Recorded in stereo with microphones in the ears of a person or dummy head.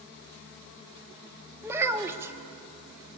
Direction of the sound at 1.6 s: 15° right (ahead or behind).